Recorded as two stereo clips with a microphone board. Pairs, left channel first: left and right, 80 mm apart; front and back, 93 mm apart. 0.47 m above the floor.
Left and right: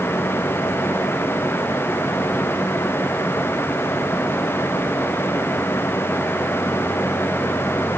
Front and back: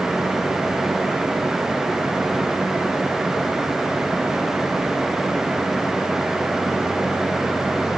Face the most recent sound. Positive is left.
No sound to turn to.